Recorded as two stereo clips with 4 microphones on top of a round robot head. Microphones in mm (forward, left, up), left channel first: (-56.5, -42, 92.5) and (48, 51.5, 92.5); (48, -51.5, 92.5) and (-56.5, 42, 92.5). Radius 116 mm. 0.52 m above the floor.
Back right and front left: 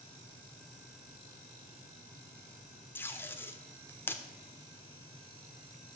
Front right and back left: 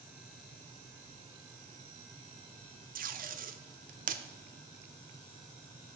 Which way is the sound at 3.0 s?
145° left.